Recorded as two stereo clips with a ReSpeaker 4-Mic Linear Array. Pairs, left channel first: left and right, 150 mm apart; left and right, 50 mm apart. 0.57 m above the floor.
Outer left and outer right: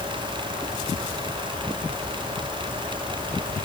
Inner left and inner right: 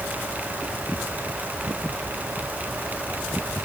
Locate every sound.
Only background noise.